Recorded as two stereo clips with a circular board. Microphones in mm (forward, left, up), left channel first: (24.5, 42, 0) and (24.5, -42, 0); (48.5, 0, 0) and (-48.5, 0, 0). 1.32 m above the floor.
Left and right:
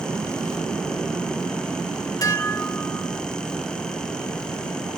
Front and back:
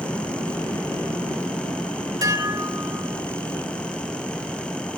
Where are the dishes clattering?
130° left, 1.4 m.